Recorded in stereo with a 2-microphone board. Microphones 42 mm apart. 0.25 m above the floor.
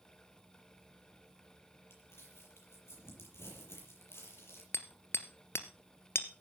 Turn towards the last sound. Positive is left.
turn(degrees=75)  # may be behind; listen again after turning